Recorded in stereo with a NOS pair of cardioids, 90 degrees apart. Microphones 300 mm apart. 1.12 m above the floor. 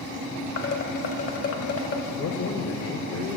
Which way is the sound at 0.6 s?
50° left.